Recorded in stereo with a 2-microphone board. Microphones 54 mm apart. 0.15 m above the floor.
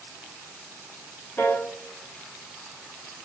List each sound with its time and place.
1.4 s a piano: 40° left (ahead or behind), 2.5 m